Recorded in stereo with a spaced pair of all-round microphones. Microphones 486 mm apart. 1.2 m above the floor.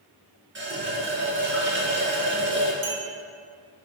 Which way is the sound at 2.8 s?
70° right (ahead or behind).